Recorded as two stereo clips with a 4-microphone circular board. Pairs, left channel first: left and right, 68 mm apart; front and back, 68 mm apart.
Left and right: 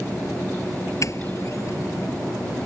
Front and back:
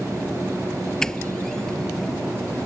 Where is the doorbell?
80° left.